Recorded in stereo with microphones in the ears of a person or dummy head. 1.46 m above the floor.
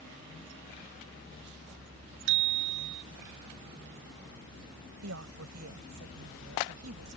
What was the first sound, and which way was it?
A bicycle bell, 75° right (ahead or behind).